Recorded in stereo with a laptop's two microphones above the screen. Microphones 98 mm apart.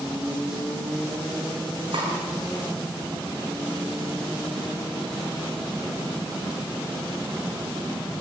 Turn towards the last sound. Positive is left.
turn(degrees=-85)